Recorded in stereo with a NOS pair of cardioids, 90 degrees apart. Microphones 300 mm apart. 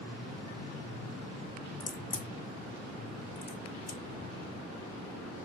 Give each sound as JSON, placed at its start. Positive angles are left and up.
{"t": 1.8, "sound": "a crack", "azimuth_deg": 30, "distance_m": 1.7}